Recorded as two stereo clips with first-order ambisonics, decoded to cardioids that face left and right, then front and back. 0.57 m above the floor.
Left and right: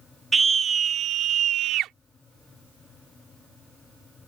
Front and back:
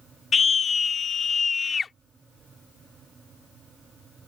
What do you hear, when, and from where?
0.3 s a scream: 30° right; by 1.9 s 70° right